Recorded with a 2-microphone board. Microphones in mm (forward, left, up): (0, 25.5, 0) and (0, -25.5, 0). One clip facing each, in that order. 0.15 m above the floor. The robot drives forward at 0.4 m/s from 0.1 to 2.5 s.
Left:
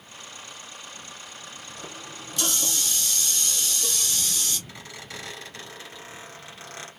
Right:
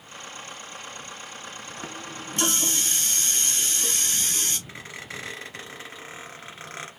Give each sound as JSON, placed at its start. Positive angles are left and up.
{"t": 1.8, "sound": "a running tap", "side_deg": -35, "distance_m": 1.3}
{"t": 4.7, "sound": "a squeak", "side_deg": -25, "distance_m": 1.6}